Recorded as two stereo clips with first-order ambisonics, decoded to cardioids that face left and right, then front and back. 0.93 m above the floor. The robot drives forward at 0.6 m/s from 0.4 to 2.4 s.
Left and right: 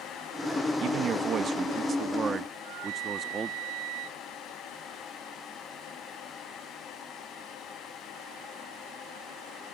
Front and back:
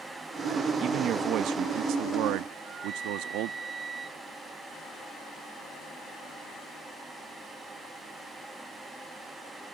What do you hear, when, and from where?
0.8 s a man speaking: 130° right; by 3.5 s 155° right
2.5 s a flute: 110° right